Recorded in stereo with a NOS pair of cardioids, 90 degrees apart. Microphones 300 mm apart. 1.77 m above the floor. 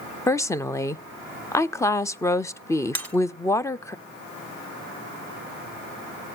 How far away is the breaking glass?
About 3 m.